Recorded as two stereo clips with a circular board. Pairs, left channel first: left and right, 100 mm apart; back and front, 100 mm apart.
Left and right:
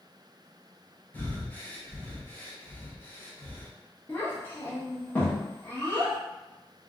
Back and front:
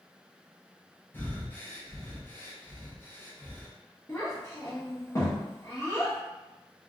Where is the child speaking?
150° left, 1.0 m.